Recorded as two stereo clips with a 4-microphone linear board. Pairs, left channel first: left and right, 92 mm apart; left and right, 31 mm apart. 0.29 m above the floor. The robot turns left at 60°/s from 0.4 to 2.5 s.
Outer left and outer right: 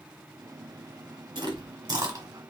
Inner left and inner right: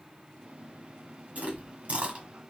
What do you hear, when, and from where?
1.4 s chewing: 55° right (ahead or behind), 1.6 m; by 2.3 s 45° right (ahead or behind), 1.6 m